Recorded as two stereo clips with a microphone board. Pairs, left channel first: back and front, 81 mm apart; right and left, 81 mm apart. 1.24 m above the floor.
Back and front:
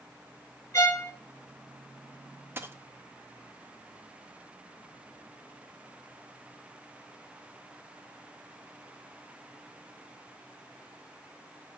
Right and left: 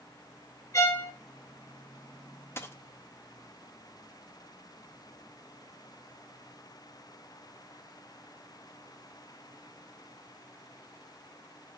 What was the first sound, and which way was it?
A violin, 135° right.